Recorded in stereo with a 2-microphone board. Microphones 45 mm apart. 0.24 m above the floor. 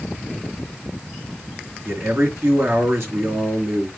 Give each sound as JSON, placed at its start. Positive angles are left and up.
{"t": 1.9, "sound": "a man speaking", "side_deg": -60, "distance_m": 3.5}